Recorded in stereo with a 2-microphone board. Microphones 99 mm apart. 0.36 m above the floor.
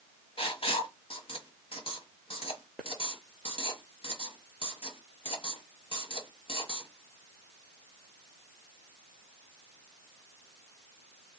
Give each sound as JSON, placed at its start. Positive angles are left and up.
{"t": 0.4, "sound": "writing", "side_deg": 70, "distance_m": 1.1}